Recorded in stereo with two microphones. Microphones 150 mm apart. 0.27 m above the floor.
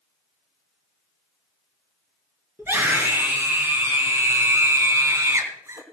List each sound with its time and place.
2.6 s a scream: 15° right (ahead or behind), 4 m; by 5.8 s 20° right (ahead or behind), 2 m